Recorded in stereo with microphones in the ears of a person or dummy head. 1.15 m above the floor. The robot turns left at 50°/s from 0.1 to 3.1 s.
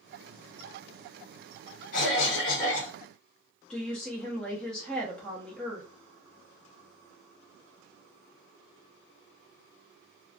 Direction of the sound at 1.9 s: 55° left.